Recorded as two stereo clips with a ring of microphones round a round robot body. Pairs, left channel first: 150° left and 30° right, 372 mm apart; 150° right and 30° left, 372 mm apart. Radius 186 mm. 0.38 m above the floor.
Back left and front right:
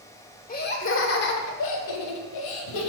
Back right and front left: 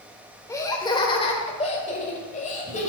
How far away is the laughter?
About 1.2 m.